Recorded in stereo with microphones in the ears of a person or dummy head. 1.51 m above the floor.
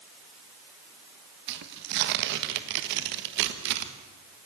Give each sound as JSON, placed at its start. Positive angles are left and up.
{"t": 1.5, "sound": "tearing paper", "side_deg": -55, "distance_m": 1.5}